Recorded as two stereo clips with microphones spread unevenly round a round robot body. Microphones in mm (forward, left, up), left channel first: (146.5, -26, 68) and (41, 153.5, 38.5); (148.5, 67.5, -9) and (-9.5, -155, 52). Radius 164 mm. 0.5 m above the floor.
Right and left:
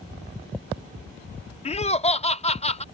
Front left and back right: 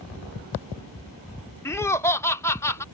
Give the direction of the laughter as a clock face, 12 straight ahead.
12 o'clock.